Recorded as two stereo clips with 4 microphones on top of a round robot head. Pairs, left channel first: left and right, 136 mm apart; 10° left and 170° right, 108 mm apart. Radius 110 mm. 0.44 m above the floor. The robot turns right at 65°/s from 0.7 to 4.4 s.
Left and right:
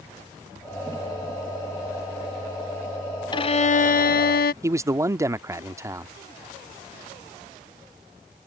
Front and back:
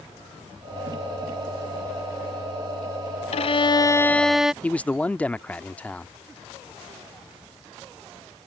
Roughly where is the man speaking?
Ahead right.